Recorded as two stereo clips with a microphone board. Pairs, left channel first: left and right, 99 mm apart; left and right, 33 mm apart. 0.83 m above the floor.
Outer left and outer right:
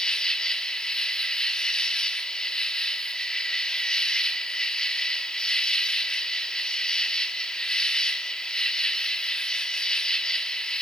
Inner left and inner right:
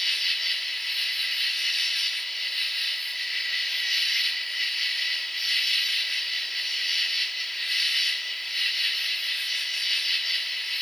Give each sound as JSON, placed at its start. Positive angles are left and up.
{"t": 0.0, "sound": "an insect", "side_deg": 10, "distance_m": 1.1}